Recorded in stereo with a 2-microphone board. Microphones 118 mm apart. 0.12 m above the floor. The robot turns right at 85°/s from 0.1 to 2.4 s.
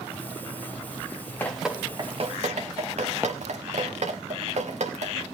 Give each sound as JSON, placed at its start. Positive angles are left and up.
{"t": 1.4, "sound": "dripping", "side_deg": 20, "distance_m": 2.0}